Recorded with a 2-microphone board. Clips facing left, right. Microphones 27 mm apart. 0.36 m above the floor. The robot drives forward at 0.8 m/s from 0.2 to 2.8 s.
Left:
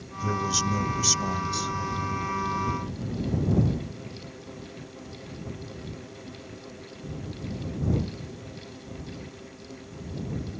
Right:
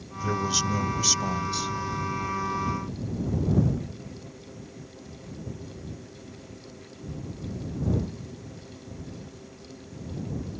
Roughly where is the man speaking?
Centre.